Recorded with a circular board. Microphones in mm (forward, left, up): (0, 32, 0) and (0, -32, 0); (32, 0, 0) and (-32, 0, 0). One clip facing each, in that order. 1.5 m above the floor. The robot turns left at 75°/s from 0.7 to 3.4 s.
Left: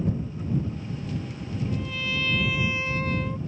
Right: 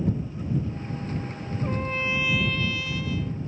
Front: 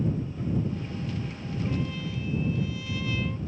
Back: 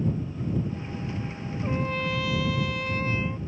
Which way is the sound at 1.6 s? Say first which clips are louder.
Right 4 dB, back 5 dB; 120° right.